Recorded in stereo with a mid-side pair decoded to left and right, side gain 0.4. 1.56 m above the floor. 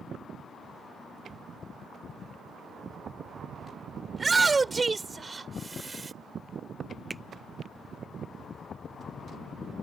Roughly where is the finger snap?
Ahead.